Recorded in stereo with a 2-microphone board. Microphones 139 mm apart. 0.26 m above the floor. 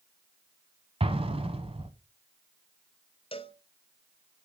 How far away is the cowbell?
About 0.7 m.